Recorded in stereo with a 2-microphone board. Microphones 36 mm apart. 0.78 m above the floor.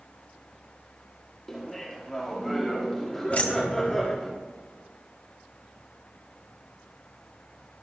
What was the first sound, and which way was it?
Laughter, 10° left (ahead or behind).